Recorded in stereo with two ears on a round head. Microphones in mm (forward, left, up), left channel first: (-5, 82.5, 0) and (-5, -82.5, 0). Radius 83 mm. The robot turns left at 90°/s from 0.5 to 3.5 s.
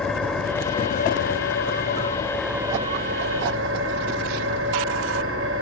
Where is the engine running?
175° left, 4 m; by 5.6 s 95° right, 4 m.